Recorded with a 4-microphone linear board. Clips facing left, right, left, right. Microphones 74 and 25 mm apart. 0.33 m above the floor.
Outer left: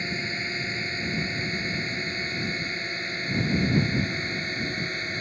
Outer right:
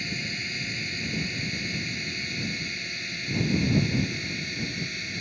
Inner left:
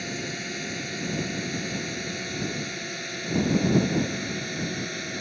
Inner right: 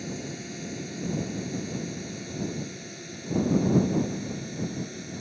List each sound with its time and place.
0.0 s a drone: 35° left (ahead or behind); by 5.2 s 40° left (ahead or behind)